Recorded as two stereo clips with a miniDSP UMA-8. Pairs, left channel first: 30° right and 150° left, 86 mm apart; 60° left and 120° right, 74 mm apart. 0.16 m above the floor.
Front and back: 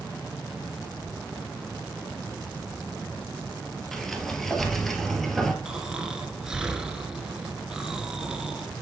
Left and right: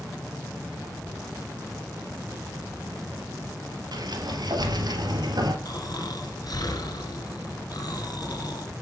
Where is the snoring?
70° left, 1.3 m.